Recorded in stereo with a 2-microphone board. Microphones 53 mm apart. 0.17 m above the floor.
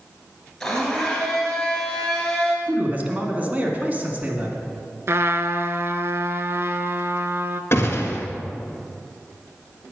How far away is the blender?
About 3 m.